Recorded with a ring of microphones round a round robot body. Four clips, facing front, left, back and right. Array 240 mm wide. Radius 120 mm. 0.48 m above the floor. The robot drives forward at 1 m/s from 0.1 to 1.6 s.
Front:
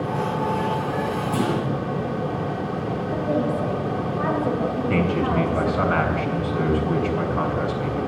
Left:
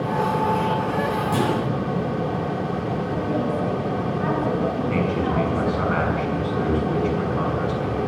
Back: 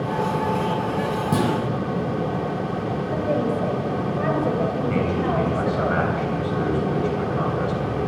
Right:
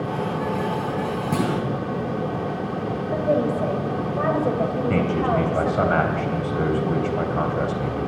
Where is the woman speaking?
110° right, 2.5 m.